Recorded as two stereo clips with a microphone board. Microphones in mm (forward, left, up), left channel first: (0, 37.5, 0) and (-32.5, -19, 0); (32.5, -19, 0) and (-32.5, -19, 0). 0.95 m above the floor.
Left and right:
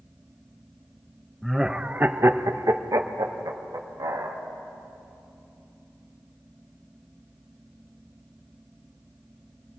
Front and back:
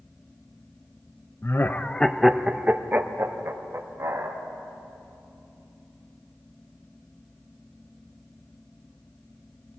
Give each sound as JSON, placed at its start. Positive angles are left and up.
{"t": 1.4, "sound": "laughter", "azimuth_deg": -30, "distance_m": 0.7}